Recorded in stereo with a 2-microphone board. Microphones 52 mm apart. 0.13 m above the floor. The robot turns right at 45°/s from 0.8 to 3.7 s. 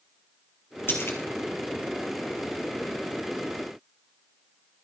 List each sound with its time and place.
0.9 s a splash: 45° left (ahead or behind), 2 m; by 1.2 s 55° left (ahead or behind), 2 m